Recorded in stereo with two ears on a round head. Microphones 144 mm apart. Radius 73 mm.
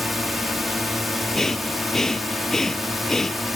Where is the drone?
Centre (ahead or behind).